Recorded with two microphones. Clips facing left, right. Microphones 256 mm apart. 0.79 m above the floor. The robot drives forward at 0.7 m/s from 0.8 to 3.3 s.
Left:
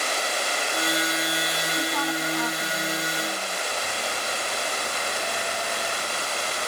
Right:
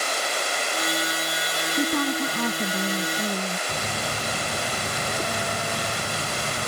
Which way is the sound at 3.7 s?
55° right (ahead or behind).